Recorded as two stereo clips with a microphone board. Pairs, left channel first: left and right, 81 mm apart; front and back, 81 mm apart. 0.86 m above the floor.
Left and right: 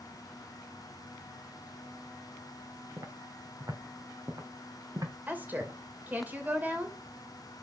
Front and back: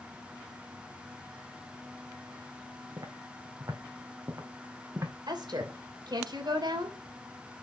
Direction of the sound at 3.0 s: 140° right.